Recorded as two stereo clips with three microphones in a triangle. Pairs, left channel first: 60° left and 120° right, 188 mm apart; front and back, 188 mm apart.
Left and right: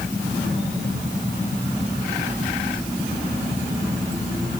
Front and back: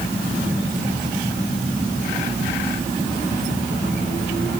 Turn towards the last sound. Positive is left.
No sound to turn to.